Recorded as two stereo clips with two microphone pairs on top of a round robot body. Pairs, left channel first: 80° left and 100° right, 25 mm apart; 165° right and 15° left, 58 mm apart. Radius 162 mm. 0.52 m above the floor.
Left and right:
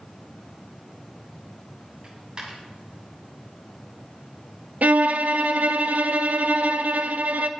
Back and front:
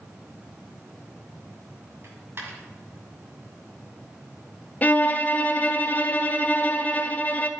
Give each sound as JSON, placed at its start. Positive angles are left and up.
{"t": 2.0, "sound": "a dropped coin", "azimuth_deg": -35, "distance_m": 1.7}
{"t": 4.8, "sound": "a violin", "azimuth_deg": -100, "distance_m": 0.5}